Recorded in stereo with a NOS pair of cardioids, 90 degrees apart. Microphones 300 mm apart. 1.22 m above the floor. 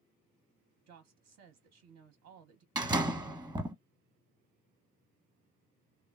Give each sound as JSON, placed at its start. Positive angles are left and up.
{"t": 0.9, "sound": "a woman speaking", "azimuth_deg": -65, "distance_m": 0.7}
{"t": 2.8, "sound": "a door slam", "azimuth_deg": -15, "distance_m": 0.8}